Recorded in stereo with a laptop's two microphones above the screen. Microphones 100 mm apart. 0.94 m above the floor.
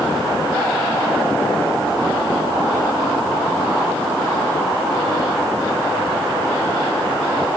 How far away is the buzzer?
I don't hear a buzzer.